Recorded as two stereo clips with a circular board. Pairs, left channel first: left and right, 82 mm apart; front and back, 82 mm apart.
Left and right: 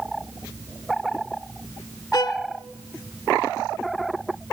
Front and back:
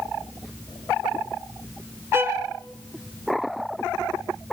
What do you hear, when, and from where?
2.1 s a violin: 120° left, 0.5 m